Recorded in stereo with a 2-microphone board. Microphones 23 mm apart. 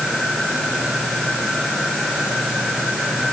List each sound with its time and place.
Only background noise.